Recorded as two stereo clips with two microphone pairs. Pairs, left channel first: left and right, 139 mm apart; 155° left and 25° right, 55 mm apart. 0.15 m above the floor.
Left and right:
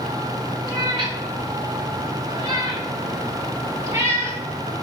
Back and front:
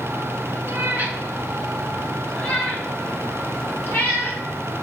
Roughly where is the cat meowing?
Ahead right.